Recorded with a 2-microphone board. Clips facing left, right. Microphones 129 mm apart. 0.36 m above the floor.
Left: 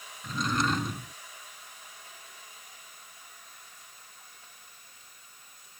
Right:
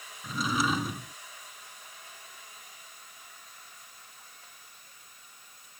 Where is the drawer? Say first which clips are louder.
Even; 5° right (ahead or behind).